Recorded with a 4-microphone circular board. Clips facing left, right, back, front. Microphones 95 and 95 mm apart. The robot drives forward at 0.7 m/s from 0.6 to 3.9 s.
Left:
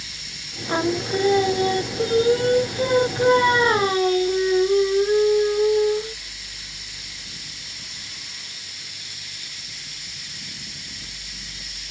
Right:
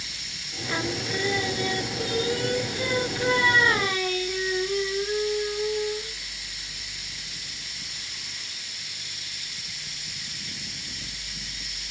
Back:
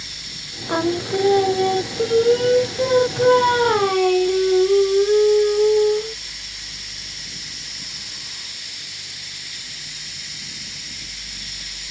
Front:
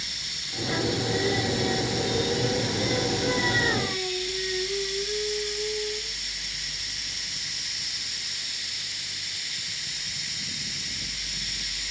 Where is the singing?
145° left; by 6.2 s 150° left.